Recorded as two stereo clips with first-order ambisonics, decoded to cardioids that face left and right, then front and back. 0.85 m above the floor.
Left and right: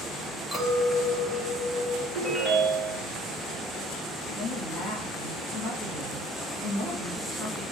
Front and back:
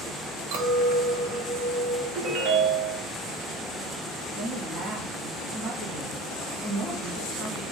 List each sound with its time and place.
0.5 s a clink: straight behind, 1.5 m
2.1 s a ringtone: 170° left, 2 m
4.3 s a woman speaking: 125° left, 1.7 m